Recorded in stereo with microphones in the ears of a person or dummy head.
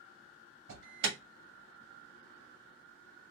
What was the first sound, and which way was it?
An alarm, 70° right (ahead or behind).